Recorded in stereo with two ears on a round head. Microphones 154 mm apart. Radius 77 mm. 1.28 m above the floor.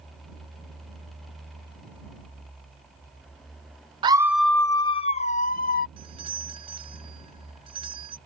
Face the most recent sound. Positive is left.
turn(degrees=-30)  # may be behind; listen again after turning